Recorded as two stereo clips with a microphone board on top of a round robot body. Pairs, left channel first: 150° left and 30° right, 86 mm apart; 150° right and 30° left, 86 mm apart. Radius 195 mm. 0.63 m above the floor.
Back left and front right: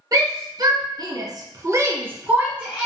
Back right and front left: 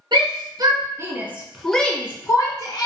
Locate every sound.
0.1 s a shout: 10° left, 1.2 m; by 2.9 s 110° right, 1.2 m